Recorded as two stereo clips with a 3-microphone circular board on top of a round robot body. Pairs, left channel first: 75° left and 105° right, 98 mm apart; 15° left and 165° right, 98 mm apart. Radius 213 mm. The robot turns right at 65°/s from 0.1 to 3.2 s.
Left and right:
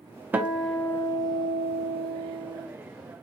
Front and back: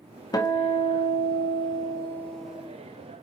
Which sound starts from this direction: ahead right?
A guitar, at 0.3 s.